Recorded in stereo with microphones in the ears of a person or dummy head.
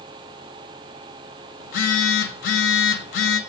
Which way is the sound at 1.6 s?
55° left (ahead or behind).